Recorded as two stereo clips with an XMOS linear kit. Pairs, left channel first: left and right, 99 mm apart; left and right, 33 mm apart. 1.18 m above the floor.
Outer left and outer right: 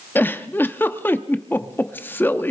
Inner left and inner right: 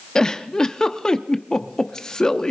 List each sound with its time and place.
0.1 s a giggle: 20° left (ahead or behind), 0.7 m